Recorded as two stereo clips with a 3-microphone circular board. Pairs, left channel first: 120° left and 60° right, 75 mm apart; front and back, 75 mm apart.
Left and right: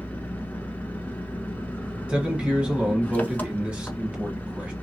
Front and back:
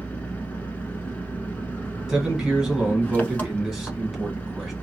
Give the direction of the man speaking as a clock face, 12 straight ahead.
4 o'clock.